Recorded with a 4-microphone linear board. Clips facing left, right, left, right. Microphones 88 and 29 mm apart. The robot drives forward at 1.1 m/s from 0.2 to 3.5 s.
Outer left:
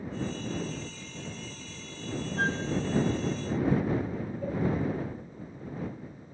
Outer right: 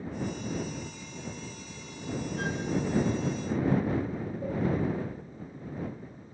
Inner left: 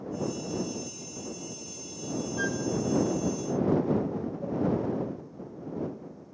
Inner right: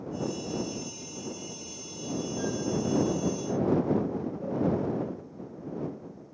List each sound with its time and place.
2.4 s a flute: 50° left (ahead or behind), 1.2 m; by 2.6 s 40° left (ahead or behind), 1.3 m
4.4 s a cowbell: 15° right (ahead or behind), 9 m